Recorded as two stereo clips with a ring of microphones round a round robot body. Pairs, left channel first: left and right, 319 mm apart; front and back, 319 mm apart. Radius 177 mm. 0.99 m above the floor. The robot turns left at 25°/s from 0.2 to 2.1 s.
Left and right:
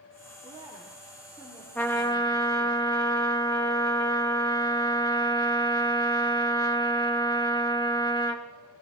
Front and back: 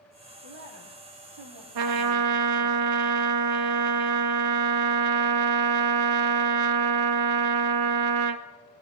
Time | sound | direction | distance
0.4 | a woman speaking | 165° right | 1.9 m
1.8 | a trumpet | 175° left | 0.9 m